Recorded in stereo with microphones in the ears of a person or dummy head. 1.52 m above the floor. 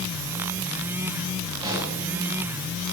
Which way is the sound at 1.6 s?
30° right (ahead or behind).